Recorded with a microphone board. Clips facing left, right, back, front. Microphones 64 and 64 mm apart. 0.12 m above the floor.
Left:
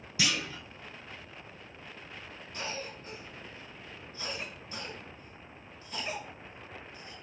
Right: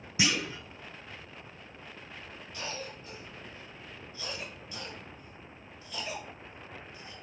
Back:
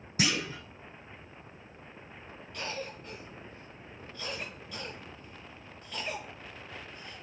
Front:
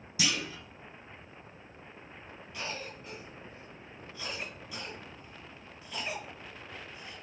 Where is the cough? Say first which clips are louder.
Left 1 dB, back 2 dB; 85° left, 1.6 m.